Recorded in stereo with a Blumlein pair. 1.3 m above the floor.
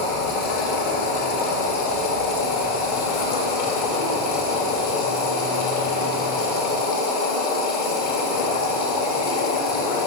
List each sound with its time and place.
0.0 s a machine running: 40° left, 1.1 m